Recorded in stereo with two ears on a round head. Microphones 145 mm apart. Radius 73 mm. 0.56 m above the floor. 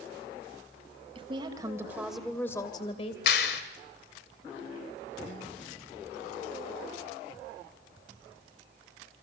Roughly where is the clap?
Left.